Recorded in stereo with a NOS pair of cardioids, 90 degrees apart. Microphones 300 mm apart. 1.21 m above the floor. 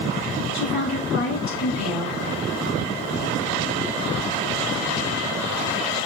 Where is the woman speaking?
65° left, 2.5 m.